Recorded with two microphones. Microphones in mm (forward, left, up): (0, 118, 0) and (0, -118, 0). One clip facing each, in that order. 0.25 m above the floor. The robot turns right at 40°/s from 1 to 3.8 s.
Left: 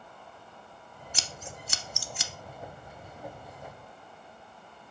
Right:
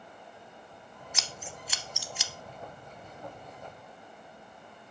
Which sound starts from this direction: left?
Scissors, at 1.1 s.